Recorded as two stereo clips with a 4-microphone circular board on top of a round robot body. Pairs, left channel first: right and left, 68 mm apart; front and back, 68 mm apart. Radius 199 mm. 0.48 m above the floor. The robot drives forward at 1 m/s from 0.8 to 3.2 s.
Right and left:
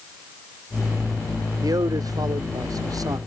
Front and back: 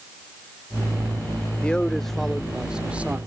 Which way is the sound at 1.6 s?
70° left.